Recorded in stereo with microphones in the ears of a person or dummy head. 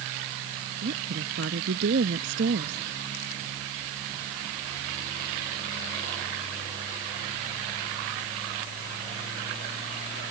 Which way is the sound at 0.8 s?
65° right (ahead or behind).